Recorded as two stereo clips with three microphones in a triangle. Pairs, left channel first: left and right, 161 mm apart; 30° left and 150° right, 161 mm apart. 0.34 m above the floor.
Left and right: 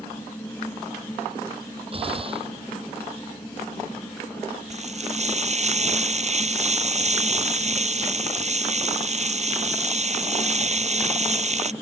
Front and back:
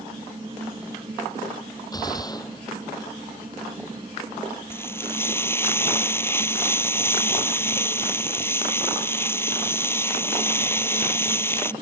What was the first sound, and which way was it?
A gunshot, 35° right.